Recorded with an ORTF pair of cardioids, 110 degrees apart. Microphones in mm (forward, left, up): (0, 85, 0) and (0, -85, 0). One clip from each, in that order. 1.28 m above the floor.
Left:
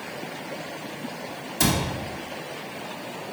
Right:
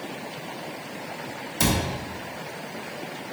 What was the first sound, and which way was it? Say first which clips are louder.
A cupboard door: even; 5° right.